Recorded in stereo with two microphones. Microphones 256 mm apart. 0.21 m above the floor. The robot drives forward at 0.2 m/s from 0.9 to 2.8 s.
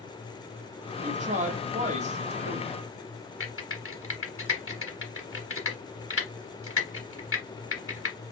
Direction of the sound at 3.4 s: 60° left (ahead or behind).